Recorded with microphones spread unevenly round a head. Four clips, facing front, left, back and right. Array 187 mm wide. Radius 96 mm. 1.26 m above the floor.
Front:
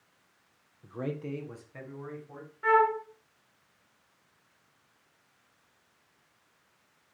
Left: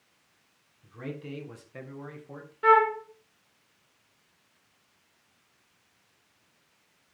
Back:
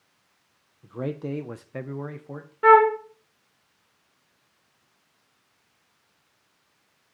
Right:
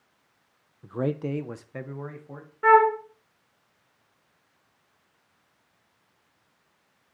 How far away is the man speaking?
About 0.8 m.